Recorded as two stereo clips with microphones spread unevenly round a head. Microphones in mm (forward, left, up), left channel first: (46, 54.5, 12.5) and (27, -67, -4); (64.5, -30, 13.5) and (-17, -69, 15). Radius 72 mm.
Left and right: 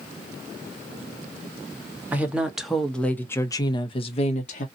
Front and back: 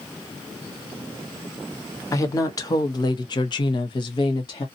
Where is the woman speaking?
25° right, 1.3 m; by 4.7 s 70° left, 1.0 m.